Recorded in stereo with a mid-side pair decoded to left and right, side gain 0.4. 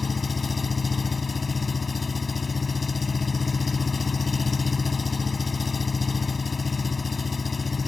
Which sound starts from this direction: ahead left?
An engine running, at 0.0 s.